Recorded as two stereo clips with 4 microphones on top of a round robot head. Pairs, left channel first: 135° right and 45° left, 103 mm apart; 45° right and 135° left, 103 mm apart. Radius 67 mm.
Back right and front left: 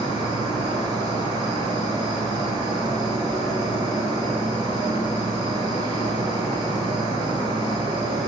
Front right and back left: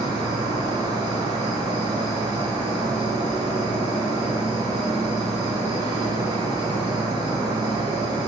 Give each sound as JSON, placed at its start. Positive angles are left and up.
{"t": 0.0, "sound": "an insect", "azimuth_deg": 85, "distance_m": 0.9}